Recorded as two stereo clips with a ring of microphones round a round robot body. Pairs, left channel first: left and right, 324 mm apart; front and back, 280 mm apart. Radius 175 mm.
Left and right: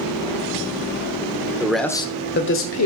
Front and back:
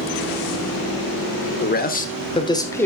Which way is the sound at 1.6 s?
10° right.